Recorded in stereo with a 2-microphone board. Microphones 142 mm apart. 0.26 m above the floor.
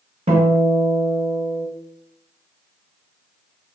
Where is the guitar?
55° right (ahead or behind), 1.3 m.